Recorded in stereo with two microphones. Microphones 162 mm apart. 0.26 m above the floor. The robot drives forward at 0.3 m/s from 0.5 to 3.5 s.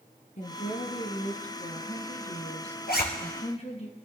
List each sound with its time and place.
0.4 s a woman speaking: 50° left (ahead or behind), 2.5 m; by 3.9 s 40° left (ahead or behind), 3 m
2.9 s a zipper: 75° left (ahead or behind), 2.5 m